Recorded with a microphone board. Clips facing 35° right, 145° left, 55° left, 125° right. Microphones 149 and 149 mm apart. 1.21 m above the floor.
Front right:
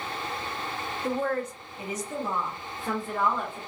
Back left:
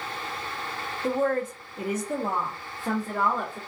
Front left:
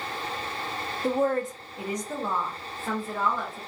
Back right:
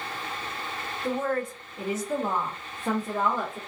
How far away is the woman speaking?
About 0.6 m.